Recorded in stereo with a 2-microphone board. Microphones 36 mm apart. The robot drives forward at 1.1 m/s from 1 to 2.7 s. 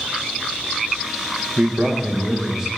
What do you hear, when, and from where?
1.6 s a man speaking: 25° right (ahead or behind), 0.7 m; by 2.7 s 10° right (ahead or behind), 1.7 m